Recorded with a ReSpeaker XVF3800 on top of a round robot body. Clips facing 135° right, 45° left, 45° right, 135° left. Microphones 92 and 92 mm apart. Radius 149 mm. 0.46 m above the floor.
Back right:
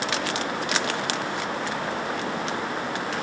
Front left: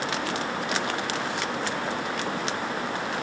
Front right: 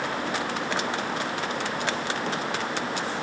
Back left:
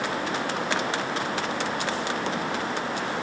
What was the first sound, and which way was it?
Only background noise.